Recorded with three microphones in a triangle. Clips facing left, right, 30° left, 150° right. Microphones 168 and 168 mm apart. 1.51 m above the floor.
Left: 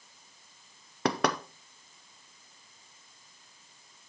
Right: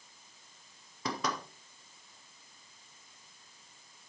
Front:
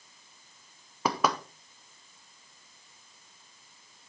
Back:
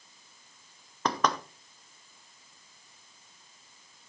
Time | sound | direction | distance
1.1 | knocking | 110° left | 0.7 m